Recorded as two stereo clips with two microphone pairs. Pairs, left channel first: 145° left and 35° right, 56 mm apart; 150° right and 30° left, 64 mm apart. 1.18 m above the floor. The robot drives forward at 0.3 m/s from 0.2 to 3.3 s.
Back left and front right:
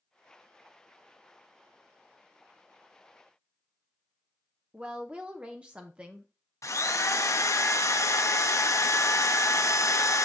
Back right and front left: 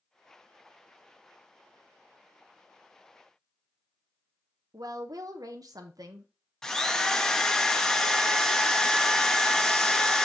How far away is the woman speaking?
About 1.0 m.